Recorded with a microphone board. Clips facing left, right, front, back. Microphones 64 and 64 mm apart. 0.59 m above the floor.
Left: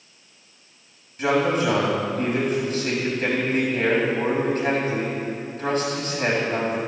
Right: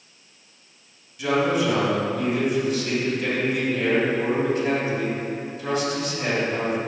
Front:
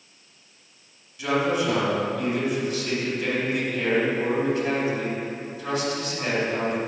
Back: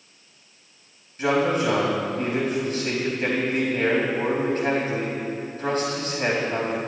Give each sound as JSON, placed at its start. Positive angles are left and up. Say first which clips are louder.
{"t": 1.2, "sound": "a man speaking", "louder": "left 1 dB, back 2 dB", "azimuth_deg": 135, "distance_m": 3.5}